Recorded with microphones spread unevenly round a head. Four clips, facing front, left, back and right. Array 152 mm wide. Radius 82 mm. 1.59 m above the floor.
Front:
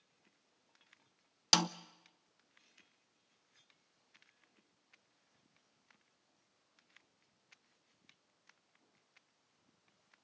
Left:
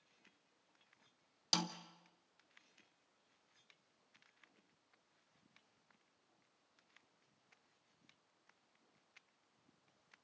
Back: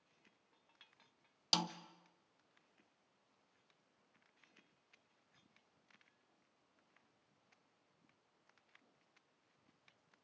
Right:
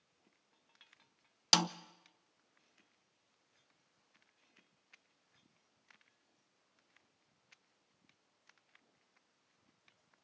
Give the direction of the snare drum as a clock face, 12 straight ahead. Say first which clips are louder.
Right 8 dB, front 6 dB; 1 o'clock.